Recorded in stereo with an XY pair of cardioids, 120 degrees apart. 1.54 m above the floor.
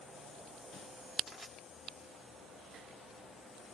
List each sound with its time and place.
1.3 s crushing: 5° left, 1.2 m